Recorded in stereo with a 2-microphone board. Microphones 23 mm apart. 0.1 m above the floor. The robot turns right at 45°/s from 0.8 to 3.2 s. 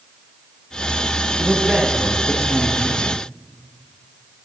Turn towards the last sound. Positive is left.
turn(degrees=15)